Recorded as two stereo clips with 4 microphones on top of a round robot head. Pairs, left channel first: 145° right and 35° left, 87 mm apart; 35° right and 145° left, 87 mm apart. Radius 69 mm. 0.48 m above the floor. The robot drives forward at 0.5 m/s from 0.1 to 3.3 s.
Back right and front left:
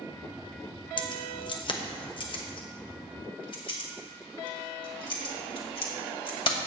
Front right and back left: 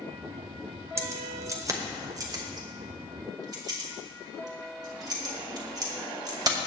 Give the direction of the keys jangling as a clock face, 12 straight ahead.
5 o'clock.